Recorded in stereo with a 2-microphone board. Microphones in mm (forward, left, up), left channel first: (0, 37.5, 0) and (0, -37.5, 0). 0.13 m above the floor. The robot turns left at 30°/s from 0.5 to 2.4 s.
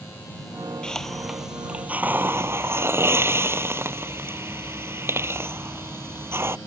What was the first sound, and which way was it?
A hiss, 10° left.